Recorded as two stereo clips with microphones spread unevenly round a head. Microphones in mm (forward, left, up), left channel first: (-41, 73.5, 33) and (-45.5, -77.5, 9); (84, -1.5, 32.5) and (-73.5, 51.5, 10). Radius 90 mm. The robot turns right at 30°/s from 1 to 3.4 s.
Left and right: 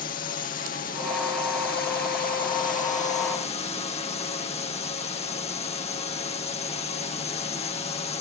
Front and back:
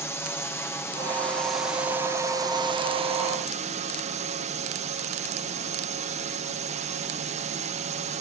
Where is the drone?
60° left; by 8.2 s 130° left.